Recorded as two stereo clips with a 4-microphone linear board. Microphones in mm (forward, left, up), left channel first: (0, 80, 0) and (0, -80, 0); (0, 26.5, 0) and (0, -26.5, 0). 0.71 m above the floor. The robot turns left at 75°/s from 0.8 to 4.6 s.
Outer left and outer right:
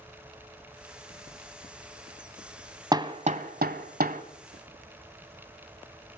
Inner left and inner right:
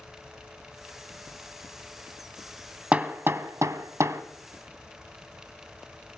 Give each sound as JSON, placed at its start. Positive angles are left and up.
{"t": 2.9, "sound": "hammering", "side_deg": -25, "distance_m": 1.4}